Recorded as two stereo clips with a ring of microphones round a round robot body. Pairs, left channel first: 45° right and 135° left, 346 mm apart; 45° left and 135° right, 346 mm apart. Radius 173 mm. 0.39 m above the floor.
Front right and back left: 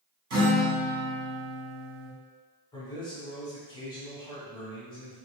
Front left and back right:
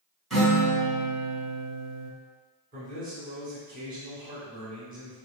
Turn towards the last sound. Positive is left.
turn(degrees=-105)